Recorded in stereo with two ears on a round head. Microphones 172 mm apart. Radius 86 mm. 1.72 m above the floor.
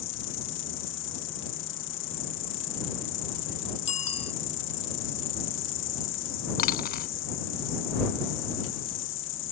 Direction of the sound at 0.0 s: 70° left (ahead or behind).